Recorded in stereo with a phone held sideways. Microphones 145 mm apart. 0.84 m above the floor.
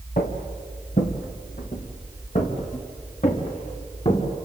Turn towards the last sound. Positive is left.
turn(degrees=50)  # may be behind; listen again after turning